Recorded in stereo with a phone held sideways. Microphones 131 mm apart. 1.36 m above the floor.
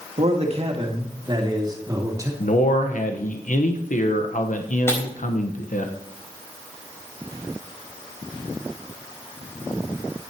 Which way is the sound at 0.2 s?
55° right (ahead or behind).